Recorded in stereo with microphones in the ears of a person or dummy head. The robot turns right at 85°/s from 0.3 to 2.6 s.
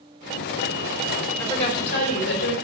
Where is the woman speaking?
15° left, 4.5 m; by 2.5 s 110° left, 4.5 m.